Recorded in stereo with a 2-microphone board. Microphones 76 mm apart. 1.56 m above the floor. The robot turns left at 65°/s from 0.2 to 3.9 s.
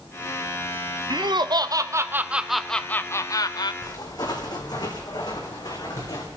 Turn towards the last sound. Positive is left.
turn(degrees=55)  # may be behind; listen again after turning